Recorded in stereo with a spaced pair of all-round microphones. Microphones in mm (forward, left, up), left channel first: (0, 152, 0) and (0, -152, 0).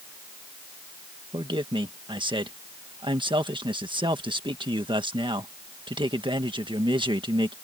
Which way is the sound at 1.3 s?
15° right (ahead or behind).